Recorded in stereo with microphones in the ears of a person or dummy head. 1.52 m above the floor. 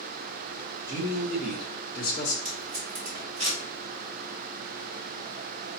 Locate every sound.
0.9 s a man speaking: 20° right (ahead or behind), 1.2 m; by 2.4 s 40° left (ahead or behind), 0.7 m
2.5 s tape being pulled: 35° right (ahead or behind), 1.9 m